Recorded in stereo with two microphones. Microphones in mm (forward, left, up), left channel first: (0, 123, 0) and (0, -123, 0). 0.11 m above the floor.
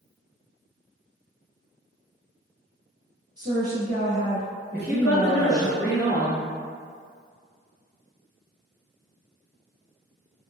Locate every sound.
3.4 s a woman speaking: 15° right (ahead or behind), 1.3 m
4.7 s a woman speaking: 5° left (ahead or behind), 1.6 m